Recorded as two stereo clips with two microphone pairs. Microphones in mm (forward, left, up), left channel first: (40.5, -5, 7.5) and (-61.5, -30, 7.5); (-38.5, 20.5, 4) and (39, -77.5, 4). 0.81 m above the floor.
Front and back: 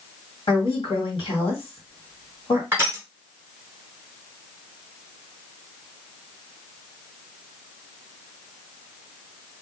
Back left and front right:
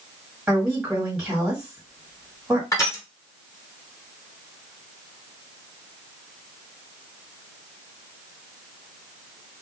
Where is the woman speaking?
30° left, 1.7 m.